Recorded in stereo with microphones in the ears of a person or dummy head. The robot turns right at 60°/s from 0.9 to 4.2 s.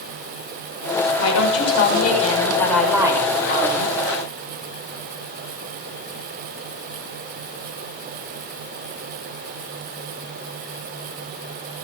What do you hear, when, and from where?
1.2 s a woman speaking: 85° left, 7 m; by 4.0 s 110° right, 7 m